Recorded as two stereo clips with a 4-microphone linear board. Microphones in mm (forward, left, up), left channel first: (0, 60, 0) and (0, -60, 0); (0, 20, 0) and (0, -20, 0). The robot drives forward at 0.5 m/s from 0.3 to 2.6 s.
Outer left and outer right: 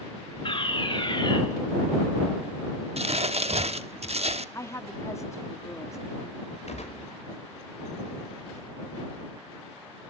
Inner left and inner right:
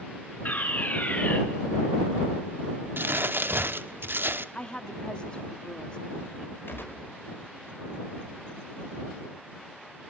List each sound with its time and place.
0.5 s a fire alarm: 45° left (ahead or behind), 3 m; by 1.4 s 40° left (ahead or behind), 3 m
3.0 s crumpling: 60° right (ahead or behind), 1.0 m
4.5 s a woman speaking: 25° left (ahead or behind), 1.7 m
6.7 s a gunshot: 65° left (ahead or behind), 5.5 m